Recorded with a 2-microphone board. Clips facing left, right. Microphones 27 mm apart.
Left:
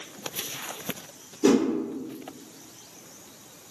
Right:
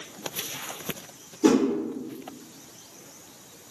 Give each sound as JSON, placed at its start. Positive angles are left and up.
{"t": 1.4, "sound": "a whoosh", "side_deg": -5, "distance_m": 1.4}